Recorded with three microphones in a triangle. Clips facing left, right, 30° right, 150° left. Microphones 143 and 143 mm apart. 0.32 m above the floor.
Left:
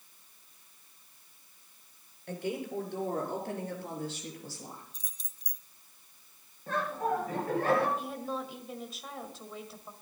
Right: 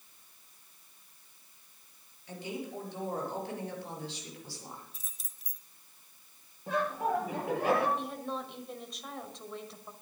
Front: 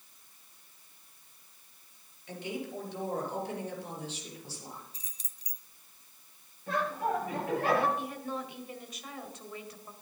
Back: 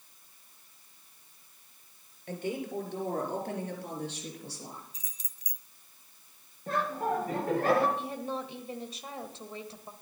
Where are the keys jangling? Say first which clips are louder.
Even, front 1 dB; 5° right, 0.8 m.